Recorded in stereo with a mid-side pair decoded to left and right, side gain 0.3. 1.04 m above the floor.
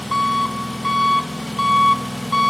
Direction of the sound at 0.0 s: 10° left.